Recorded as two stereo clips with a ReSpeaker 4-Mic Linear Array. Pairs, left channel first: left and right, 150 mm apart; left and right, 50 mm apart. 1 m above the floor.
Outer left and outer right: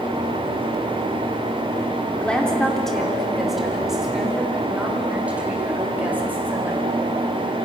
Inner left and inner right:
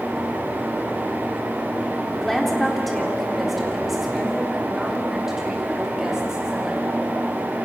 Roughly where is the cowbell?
No cowbell in this recording.